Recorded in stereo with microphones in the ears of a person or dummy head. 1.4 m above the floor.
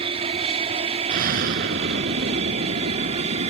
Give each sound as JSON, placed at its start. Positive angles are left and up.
{"t": 0.0, "sound": "an aircraft", "side_deg": -30}
{"t": 1.1, "sound": "an explosion", "side_deg": -55}